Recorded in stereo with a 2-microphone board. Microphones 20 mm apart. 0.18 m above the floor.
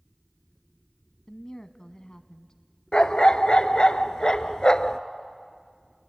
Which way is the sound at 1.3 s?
25° left (ahead or behind).